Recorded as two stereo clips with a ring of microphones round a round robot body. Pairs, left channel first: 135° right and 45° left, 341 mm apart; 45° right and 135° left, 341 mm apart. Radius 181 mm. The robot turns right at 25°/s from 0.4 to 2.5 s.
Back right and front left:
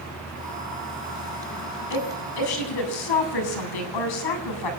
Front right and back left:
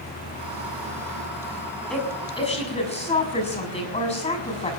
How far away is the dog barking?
I don't hear a dog barking.